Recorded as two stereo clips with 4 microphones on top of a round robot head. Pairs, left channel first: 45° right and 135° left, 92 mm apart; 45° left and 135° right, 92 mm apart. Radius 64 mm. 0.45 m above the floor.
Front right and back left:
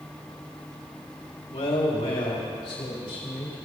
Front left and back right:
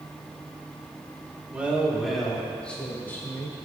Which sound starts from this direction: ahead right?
A man speaking, at 1.5 s.